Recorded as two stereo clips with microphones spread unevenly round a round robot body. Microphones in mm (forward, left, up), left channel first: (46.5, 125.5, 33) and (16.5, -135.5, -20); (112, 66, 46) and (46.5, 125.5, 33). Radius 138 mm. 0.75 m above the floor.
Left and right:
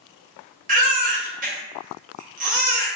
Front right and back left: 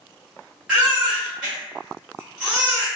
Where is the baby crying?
145° right, 0.5 m.